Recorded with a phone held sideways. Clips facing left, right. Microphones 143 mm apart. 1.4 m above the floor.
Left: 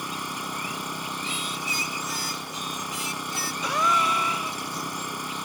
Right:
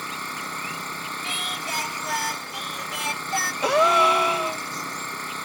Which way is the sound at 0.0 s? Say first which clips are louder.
Left 1 dB; 10° left (ahead or behind).